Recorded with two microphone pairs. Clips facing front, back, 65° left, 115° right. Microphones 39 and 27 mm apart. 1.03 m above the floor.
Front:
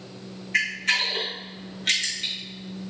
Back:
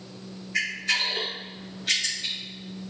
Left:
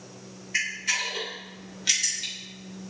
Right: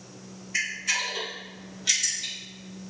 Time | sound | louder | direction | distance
0.5 | a camera shutter | front 3 dB, even | 5° right | 3.5 m